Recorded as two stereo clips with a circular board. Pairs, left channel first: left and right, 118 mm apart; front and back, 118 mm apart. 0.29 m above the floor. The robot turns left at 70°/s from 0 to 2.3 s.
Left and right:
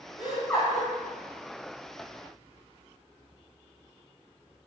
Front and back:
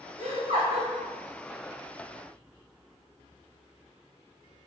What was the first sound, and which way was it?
Laughter, 175° right.